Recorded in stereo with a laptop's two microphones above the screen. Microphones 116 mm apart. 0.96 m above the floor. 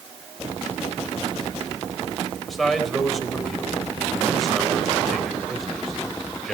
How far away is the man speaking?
About 4 m.